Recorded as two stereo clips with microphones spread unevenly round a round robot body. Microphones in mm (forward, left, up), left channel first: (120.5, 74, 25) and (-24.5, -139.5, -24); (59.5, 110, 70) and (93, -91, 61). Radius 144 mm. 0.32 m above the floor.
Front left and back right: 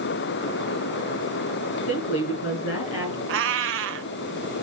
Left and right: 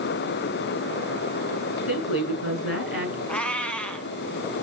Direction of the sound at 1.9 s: 115° left.